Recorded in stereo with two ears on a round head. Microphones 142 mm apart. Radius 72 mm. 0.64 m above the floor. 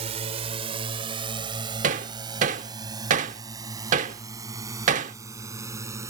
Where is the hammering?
50° right (ahead or behind).